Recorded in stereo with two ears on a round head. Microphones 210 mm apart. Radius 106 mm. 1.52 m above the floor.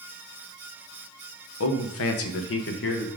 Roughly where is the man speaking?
Left.